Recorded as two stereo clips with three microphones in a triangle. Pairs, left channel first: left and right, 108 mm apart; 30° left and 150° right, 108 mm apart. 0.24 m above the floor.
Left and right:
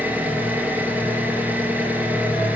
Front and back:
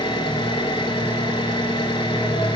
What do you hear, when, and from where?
0.0 s an engine running: 20° right, 1.2 m